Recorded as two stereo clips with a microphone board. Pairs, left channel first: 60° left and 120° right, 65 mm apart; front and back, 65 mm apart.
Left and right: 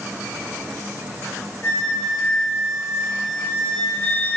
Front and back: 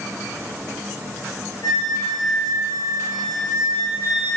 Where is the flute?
5° left, 5.5 m.